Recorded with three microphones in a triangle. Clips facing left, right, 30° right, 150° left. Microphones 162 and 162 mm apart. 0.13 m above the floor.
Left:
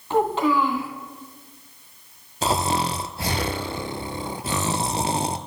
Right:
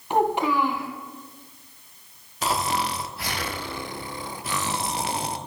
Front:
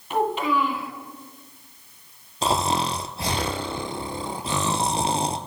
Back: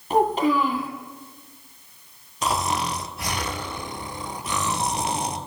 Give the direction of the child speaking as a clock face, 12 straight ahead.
5 o'clock.